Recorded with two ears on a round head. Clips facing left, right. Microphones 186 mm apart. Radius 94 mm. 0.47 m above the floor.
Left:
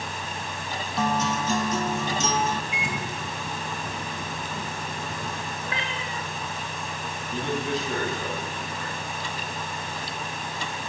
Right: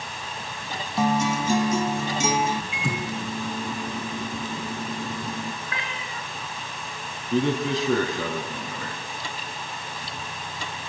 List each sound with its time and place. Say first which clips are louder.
1.0 s a guitar: right 3 dB; 10° right (ahead or behind), 0.8 m
2.7 s a microwave: right 3 dB; 75° right (ahead or behind), 4.5 m
5.6 s a cat meowing: left 2 dB; 25° left (ahead or behind), 3 m
7.3 s a man speaking: right 6 dB; 70° right (ahead or behind), 4 m